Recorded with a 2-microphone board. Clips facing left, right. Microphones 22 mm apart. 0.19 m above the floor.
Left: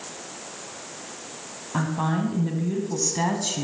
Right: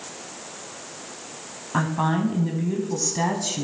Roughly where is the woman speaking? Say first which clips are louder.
Right 2 dB; centre.